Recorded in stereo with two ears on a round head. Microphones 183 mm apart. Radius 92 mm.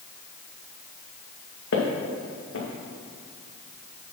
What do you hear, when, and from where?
1.7 s footsteps: 70° left (ahead or behind), 2.5 m